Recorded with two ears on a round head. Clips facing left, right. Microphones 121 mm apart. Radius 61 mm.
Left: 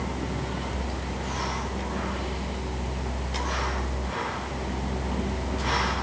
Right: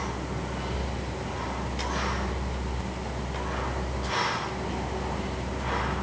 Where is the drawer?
No drawer in this recording.